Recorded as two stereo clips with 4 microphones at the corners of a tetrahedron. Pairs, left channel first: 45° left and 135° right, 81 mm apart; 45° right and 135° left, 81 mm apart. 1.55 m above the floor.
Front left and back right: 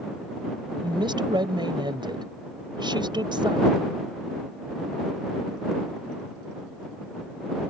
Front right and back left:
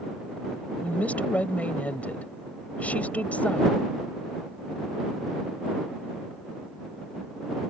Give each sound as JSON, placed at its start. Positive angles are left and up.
{"t": 0.8, "sound": "a woman speaking", "azimuth_deg": -120}